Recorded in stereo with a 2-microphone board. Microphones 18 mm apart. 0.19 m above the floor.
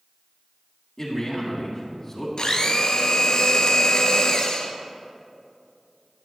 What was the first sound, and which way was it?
A man speaking, 30° left (ahead or behind).